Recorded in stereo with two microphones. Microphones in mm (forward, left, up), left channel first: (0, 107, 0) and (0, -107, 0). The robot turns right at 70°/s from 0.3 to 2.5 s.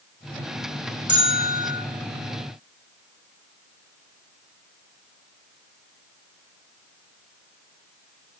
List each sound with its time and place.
1.1 s a bell: 55° left, 4 m; by 1.8 s 105° left, 4 m